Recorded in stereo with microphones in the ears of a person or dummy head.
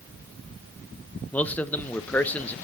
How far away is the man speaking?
About 0.8 m.